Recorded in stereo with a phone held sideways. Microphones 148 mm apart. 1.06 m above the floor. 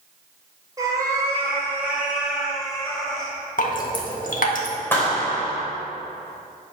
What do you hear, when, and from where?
0.8 s a cat meowing: 25° right (ahead or behind), 2.5 m; by 3.3 s 5° left (ahead or behind), 3 m
3.6 s dripping: 65° left (ahead or behind), 1.6 m
4.9 s a clap: 15° left (ahead or behind), 3 m